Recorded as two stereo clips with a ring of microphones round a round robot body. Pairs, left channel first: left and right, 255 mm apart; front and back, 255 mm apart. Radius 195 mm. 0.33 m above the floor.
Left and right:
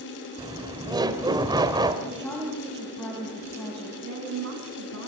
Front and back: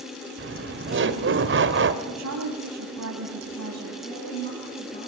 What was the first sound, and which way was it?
Laughter, 160° right.